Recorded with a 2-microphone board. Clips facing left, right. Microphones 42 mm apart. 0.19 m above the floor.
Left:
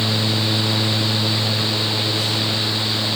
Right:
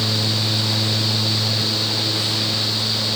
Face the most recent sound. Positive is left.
No sound to turn to.